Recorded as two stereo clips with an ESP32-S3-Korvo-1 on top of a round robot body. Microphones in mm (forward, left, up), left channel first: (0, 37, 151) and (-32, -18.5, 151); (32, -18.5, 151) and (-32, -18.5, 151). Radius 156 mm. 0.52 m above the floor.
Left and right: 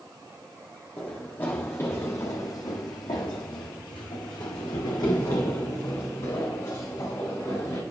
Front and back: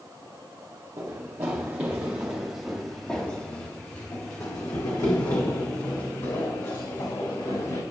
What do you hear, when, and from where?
1.0 s running footsteps: 130° left, 1.7 m; by 7.8 s 15° left, 3 m